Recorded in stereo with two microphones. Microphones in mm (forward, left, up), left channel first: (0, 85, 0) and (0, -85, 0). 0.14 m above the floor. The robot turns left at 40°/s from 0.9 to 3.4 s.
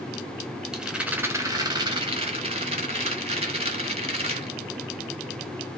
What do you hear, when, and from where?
0.7 s a rattle: 5° right, 0.7 m; by 4.6 s 105° right, 0.7 m